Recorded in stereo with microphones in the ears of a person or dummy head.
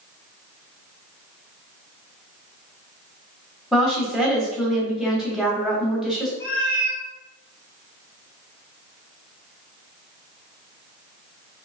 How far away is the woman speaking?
About 0.9 m.